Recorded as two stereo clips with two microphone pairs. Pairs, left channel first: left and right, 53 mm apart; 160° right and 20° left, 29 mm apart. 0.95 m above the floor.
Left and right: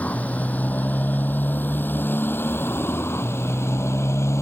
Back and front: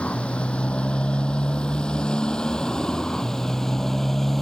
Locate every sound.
0.0 s a motorcycle: 155° left; by 4.4 s 120° left